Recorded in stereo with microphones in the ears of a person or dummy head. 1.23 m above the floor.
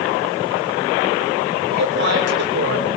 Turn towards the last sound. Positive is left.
turn(degrees=-65)  # may be behind; listen again after turning